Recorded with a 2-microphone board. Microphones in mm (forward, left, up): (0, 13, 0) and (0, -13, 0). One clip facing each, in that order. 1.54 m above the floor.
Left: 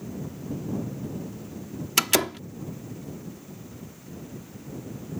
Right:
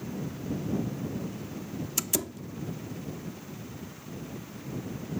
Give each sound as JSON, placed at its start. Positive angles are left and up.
{"t": 2.0, "sound": "a door slam", "side_deg": 70}